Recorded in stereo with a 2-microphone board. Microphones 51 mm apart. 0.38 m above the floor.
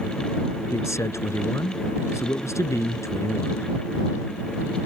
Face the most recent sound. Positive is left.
turn(degrees=75)  # may be behind; listen again after turning